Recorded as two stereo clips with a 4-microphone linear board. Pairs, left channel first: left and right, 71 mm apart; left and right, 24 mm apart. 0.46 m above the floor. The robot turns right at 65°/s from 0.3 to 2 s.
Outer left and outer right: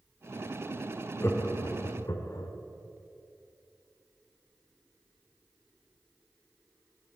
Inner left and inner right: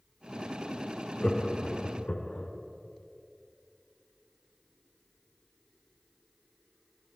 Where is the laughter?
35° left (ahead or behind), 1.1 m; by 2.5 s 50° left (ahead or behind), 1.1 m.